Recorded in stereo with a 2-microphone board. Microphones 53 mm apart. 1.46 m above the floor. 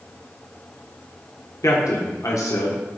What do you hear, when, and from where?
1.6 s a man speaking: 75° left (ahead or behind), 1.4 m